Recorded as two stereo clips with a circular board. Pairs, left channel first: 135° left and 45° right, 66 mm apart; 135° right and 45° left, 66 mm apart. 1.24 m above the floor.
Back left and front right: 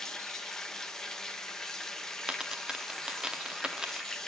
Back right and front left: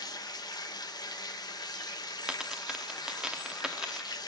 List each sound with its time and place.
0.0 s running water: 145° right, 0.9 m
2.3 s a dropped coin: 5° right, 0.7 m